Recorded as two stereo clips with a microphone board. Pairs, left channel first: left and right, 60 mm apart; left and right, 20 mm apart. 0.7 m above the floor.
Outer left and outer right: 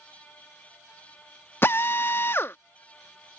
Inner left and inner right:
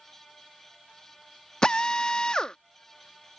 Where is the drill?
40° left (ahead or behind).